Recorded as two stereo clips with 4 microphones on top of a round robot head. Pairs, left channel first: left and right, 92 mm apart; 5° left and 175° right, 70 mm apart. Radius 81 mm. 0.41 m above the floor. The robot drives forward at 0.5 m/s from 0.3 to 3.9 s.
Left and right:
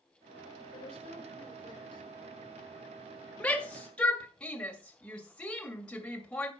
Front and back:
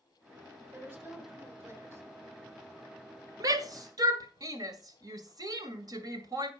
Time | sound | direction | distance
0.7 | a woman speaking | 125° left | 6 m
3.4 | a shout | 165° left | 1.9 m